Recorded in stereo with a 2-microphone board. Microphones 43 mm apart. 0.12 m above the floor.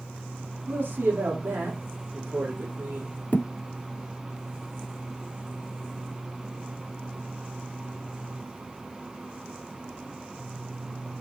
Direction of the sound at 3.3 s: 35° left (ahead or behind).